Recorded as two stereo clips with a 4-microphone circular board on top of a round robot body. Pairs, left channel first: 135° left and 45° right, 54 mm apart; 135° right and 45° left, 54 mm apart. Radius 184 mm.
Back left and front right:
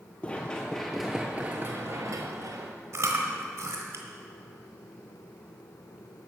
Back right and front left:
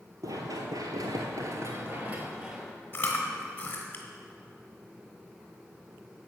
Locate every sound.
0.2 s running footsteps: 70° left, 0.9 m; by 2.7 s 35° right, 0.9 m
2.9 s chewing: 70° right, 1.8 m